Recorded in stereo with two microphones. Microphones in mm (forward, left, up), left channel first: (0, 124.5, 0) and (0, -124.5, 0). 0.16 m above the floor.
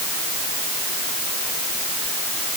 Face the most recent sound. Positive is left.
No sound to turn to.